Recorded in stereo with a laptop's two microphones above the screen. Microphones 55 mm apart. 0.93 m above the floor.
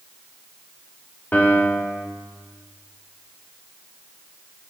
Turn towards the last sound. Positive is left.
turn(degrees=35)  # may be behind; listen again after turning